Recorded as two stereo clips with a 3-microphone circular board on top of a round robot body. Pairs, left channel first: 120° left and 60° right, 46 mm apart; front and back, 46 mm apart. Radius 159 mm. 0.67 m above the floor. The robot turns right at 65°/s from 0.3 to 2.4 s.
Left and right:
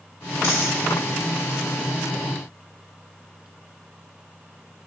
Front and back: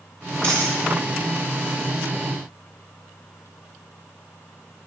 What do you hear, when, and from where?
0.4 s a dropped coin: 150° left, 2.5 m; by 0.8 s 170° left, 2.5 m